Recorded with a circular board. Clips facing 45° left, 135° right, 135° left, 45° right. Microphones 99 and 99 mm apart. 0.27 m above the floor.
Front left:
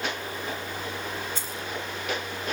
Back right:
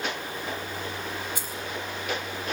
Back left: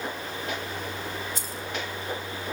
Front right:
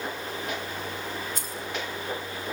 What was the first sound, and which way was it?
Keys jangling, 60° right.